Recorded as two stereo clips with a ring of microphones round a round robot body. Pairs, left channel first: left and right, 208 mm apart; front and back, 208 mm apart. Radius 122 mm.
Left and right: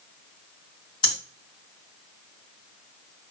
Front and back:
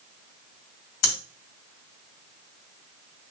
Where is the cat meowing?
I don't hear a cat meowing.